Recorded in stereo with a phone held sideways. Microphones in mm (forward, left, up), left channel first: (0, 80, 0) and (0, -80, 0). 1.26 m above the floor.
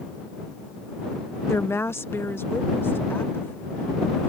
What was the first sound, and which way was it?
A woman speaking, 15° left (ahead or behind).